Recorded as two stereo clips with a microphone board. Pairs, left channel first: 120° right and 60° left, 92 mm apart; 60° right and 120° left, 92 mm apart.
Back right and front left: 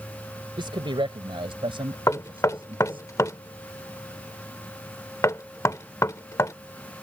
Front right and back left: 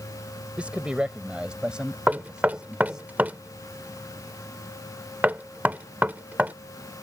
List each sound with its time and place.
0.6 s a man speaking: 45° left; by 3.1 s 35° left
2.1 s knocking: 170° right